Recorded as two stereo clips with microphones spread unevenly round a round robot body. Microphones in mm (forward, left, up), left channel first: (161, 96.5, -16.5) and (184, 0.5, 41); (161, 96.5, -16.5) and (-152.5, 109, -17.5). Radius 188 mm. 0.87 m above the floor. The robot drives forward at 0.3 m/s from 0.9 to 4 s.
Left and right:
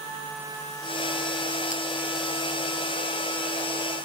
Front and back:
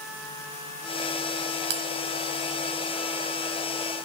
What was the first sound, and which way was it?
A bell, 155° left.